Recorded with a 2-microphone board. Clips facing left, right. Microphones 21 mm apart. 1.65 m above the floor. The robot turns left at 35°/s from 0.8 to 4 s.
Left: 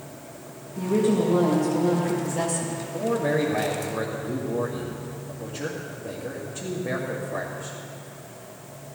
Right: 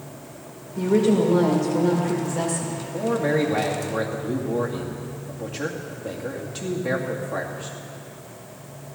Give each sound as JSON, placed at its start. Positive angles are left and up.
{"t": 0.8, "sound": "a woman speaking", "azimuth_deg": -105, "distance_m": 2.0}
{"t": 2.9, "sound": "a man speaking", "azimuth_deg": -50, "distance_m": 2.5}